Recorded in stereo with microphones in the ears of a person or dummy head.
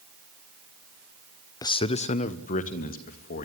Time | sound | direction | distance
1.6 | a man speaking | 20° left (ahead or behind) | 0.6 m